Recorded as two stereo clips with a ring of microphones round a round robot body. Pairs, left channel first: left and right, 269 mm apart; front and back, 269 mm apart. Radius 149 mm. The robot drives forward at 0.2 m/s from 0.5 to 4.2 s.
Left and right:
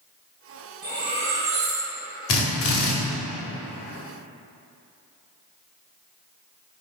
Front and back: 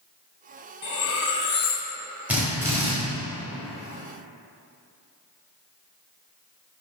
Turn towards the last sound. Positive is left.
turn(degrees=120)